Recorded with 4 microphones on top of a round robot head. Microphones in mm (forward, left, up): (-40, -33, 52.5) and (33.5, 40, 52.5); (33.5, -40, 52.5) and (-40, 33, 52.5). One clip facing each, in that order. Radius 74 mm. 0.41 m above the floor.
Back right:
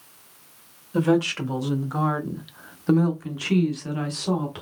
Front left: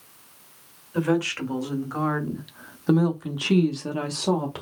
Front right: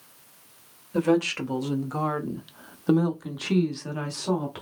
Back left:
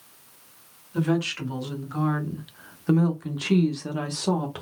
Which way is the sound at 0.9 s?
75° right.